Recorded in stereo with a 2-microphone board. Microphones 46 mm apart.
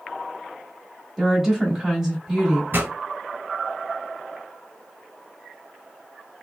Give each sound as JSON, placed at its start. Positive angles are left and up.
{"t": 1.2, "sound": "a woman speaking", "side_deg": -15, "distance_m": 1.1}
{"t": 2.7, "sound": "a pop", "side_deg": -55, "distance_m": 1.4}